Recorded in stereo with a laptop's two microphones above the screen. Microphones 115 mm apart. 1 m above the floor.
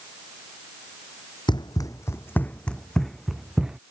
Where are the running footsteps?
40° left (ahead or behind); by 3.8 s 5° right (ahead or behind).